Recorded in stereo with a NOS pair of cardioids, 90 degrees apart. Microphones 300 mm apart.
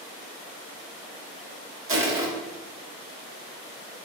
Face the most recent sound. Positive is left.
turn(degrees=-45)